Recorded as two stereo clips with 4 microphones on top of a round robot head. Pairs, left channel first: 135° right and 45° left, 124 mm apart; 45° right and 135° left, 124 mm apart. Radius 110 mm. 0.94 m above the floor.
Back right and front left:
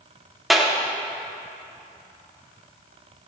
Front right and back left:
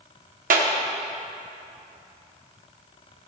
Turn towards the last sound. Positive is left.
turn(degrees=135)